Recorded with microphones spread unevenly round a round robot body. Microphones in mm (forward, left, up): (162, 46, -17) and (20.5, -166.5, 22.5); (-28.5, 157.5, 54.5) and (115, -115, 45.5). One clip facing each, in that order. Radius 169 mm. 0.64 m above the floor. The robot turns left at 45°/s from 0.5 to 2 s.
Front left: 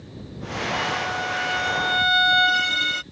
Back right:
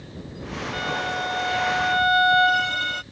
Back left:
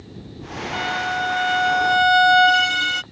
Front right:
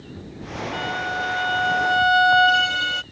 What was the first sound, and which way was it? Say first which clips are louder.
A violin: even, back left 1 dB; 140° left.